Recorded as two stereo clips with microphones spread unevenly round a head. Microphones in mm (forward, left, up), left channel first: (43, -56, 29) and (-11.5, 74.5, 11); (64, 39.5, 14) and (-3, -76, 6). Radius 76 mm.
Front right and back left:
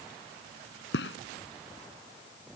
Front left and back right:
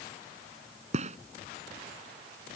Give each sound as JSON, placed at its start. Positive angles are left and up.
{"t": 0.9, "sound": "a gunshot", "azimuth_deg": -85}